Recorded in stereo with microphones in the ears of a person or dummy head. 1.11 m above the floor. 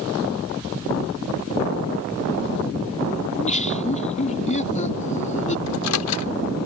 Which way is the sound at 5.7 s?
85° left.